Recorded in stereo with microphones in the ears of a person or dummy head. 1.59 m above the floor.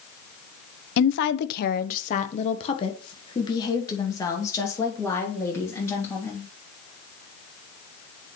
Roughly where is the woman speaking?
Left.